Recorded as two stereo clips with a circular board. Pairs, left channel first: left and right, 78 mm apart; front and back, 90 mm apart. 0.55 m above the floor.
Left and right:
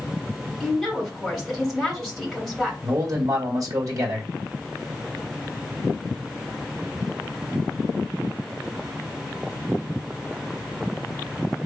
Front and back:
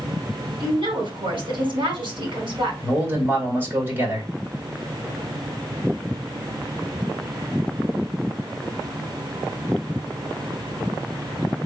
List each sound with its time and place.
0.6 s a woman speaking: 175° right, 2.5 m
2.8 s a man speaking: 115° right, 1.9 m